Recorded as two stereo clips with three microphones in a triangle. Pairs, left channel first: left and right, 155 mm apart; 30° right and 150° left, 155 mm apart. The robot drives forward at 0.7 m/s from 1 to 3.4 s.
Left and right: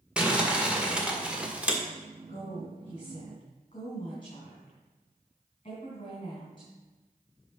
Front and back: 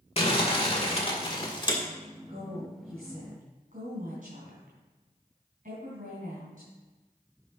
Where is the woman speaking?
130° left, 2.5 m; by 6.7 s 140° left, 3.5 m.